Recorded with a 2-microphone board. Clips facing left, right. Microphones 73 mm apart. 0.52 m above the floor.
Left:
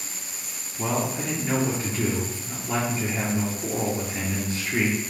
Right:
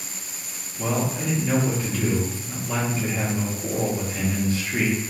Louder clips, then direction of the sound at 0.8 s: Right 1 dB; 25° left (ahead or behind).